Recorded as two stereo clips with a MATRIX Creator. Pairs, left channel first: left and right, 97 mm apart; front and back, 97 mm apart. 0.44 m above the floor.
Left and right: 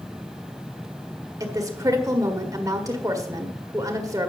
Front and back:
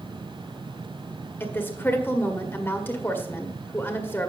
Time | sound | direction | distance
1.4 | a woman speaking | 55° right | 1.6 m